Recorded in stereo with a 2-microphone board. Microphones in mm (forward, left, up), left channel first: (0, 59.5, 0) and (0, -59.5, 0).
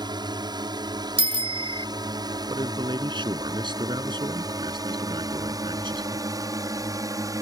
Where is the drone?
40° right (ahead or behind); by 7.4 s 30° right (ahead or behind).